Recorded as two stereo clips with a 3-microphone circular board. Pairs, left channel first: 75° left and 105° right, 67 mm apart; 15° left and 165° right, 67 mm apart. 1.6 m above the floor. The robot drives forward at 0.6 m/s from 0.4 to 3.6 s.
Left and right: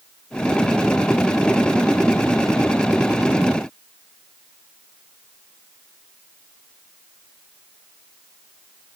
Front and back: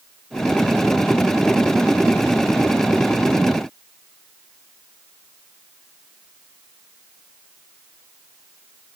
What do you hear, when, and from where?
Only background noise.